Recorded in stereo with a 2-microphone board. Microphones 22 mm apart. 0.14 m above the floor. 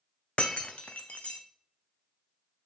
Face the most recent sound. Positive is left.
turn(degrees=65)  # may be behind; listen again after turning